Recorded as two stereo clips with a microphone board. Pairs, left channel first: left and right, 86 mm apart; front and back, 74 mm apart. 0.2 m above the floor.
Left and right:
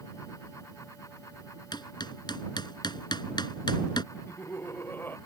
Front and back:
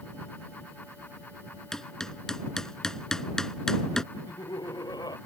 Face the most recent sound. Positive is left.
turn(degrees=25)